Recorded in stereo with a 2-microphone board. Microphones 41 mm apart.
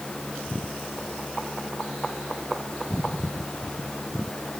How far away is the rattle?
No rattle in this recording.